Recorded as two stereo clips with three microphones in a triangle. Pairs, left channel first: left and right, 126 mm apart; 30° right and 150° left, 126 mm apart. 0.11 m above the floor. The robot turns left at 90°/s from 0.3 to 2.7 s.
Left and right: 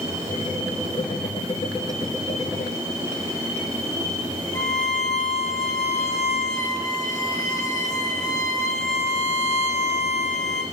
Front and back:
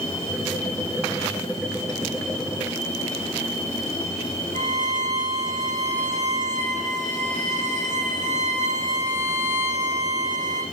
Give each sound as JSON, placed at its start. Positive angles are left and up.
{"t": 4.5, "sound": "a violin", "azimuth_deg": 150, "distance_m": 9.0}